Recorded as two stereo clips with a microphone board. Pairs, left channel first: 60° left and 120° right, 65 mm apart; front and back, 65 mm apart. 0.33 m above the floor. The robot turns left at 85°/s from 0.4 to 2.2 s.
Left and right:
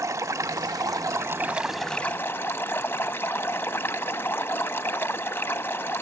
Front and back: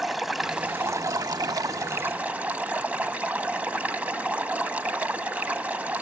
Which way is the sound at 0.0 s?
95° right.